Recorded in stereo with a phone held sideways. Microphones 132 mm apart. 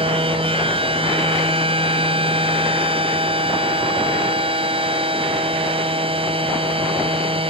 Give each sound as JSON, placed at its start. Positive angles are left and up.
{"t": 0.0, "sound": "a machine running", "side_deg": -45}